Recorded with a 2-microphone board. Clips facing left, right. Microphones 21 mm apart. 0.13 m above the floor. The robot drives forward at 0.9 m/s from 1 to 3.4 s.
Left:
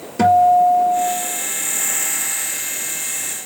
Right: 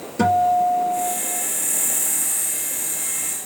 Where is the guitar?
20° left (ahead or behind), 3 m.